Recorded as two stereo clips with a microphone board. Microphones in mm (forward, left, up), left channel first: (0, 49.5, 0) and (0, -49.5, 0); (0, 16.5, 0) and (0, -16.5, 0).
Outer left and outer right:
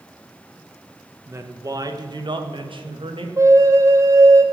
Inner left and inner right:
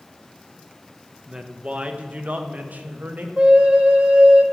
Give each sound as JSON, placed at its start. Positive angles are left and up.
{"t": 1.3, "sound": "a woman speaking", "side_deg": -25, "distance_m": 1.1}
{"t": 3.4, "sound": "a flute", "side_deg": -30, "distance_m": 1.0}